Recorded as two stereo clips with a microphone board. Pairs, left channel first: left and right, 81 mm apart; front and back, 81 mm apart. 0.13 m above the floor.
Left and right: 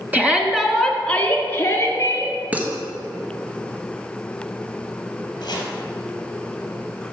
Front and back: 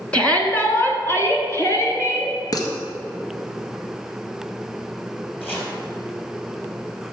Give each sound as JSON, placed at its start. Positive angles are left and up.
{"t": 0.1, "sound": "a shout", "azimuth_deg": -55, "distance_m": 1.3}
{"t": 2.5, "sound": "dishes clattering", "azimuth_deg": -20, "distance_m": 1.5}
{"t": 5.4, "sound": "chopping", "azimuth_deg": 65, "distance_m": 2.5}